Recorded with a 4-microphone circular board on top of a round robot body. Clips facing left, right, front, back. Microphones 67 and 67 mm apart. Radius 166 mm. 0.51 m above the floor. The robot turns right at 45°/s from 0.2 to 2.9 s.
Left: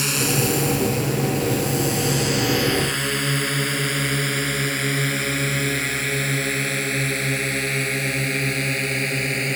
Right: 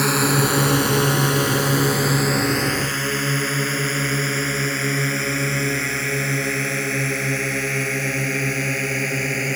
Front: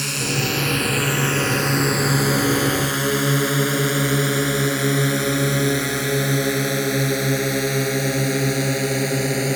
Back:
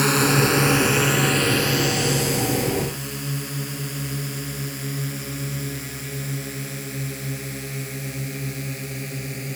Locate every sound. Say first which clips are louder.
0.0 s a drone: right 4 dB, back 6 dB; 135° right; by 9.6 s 10° right